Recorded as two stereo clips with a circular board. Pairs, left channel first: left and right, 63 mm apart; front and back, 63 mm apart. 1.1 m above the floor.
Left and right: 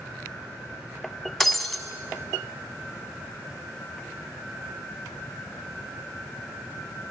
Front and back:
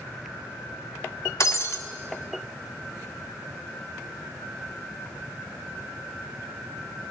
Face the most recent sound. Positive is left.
turn(degrees=5)